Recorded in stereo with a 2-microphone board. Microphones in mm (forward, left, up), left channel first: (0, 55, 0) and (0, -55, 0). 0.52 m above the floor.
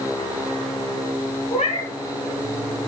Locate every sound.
1.5 s a cat meowing: 60° left (ahead or behind), 1.5 m